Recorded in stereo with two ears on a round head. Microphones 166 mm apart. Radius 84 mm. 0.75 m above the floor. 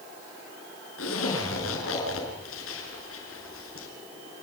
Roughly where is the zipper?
Left.